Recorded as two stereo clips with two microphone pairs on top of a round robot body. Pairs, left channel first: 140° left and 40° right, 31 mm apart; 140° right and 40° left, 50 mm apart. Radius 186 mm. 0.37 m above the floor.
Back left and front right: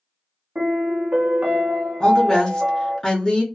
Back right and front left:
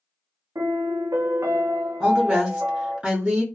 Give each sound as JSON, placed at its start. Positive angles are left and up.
{"t": 0.6, "sound": "a piano", "azimuth_deg": 15, "distance_m": 0.5}
{"t": 2.0, "sound": "a woman speaking", "azimuth_deg": 80, "distance_m": 1.0}